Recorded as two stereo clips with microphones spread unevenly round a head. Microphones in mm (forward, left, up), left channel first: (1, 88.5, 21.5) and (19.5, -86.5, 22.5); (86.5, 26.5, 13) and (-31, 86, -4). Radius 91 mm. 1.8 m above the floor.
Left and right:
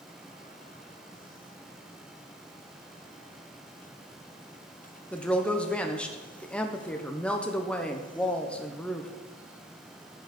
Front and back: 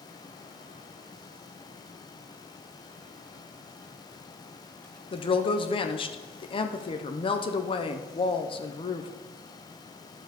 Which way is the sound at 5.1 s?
10° left.